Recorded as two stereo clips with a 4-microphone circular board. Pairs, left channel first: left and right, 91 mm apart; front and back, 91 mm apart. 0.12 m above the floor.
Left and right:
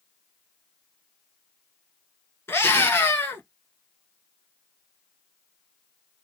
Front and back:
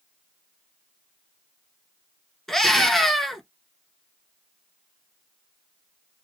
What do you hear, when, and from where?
2.5 s a scream: 80° left, 1.3 m